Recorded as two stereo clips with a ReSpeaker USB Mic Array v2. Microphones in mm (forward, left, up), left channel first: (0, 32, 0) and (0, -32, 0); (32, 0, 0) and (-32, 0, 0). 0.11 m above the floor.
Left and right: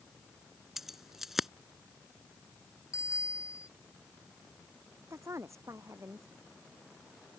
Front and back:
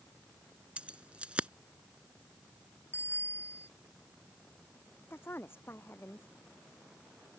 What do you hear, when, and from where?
0.8 s keys jangling: 165° right
2.9 s a bicycle bell: 55° left
5.1 s a woman speaking: 50° right